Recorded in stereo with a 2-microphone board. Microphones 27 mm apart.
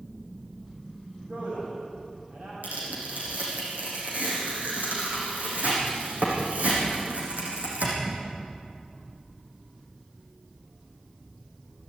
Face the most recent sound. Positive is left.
turn(degrees=-85)